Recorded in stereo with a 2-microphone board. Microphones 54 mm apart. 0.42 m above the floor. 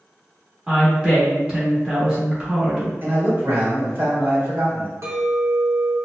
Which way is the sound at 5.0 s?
55° right (ahead or behind).